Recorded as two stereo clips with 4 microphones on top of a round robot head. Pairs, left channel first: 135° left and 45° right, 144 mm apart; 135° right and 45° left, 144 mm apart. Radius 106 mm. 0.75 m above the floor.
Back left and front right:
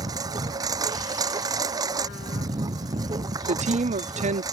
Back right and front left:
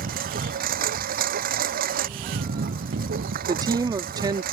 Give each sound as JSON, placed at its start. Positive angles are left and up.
{"t": 0.0, "sound": "a lawn mower", "azimuth_deg": 20}
{"t": 3.5, "sound": "a woman speaking", "azimuth_deg": -15}